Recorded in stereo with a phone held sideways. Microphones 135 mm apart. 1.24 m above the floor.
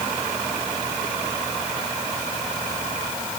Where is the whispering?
I don't hear whispering.